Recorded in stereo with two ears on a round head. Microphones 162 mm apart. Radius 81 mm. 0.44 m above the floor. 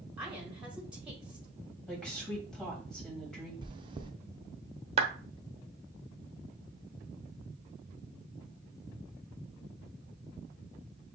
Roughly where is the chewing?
Right.